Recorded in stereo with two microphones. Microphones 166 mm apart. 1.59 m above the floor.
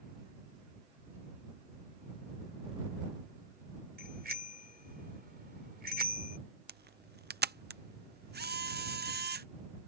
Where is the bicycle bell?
75° right (ahead or behind).